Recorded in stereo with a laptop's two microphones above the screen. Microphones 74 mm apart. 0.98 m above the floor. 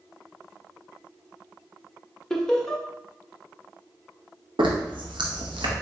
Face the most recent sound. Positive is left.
turn(degrees=-85)